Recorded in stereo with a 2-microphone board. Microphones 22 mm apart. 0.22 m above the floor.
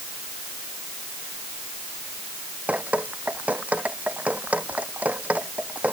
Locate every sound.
2.7 s dripping: 80° right